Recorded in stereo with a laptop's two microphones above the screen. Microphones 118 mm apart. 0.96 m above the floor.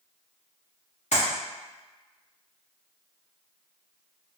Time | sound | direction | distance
1.1 | a clap | 70° left (ahead or behind) | 1.2 m